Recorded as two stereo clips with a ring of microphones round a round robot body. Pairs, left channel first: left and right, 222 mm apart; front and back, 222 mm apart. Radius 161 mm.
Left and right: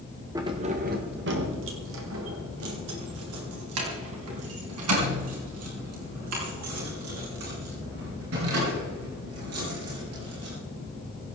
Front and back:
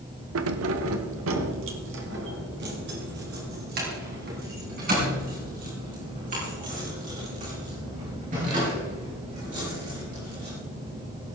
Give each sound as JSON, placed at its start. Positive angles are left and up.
{"t": 0.3, "sound": "keys jangling", "azimuth_deg": -170, "distance_m": 0.9}